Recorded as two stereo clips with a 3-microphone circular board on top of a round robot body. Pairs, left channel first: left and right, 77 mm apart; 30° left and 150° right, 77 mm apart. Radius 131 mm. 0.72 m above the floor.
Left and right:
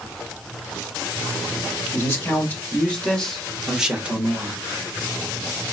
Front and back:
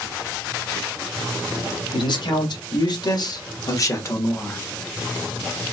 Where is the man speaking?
30° left, 1.9 m; by 4.6 s 35° right, 1.3 m.